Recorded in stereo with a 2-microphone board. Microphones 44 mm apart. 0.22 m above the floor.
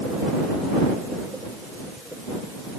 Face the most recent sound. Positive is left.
No sound to turn to.